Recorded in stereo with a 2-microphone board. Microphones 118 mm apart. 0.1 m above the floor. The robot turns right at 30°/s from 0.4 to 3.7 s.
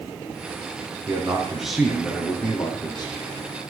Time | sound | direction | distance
1.1 | a man speaking | 20° right | 4 m